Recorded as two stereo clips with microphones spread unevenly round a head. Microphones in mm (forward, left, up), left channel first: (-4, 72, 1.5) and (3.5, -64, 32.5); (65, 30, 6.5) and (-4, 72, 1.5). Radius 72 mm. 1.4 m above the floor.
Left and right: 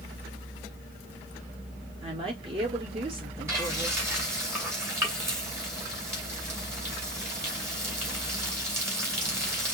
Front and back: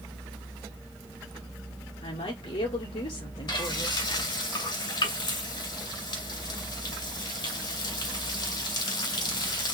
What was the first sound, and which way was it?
A woman speaking, 35° right.